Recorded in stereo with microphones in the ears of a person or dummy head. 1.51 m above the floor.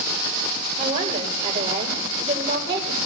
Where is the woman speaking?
30° right (ahead or behind), 6.5 m.